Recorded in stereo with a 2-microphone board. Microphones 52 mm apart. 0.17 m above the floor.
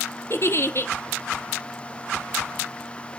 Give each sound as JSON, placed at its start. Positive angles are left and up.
{"t": 0.3, "sound": "a giggle", "side_deg": 50, "distance_m": 1.2}